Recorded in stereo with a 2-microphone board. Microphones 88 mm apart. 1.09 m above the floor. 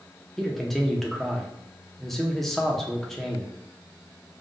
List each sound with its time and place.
0.4 s a man speaking: centre (ahead or behind), 0.7 m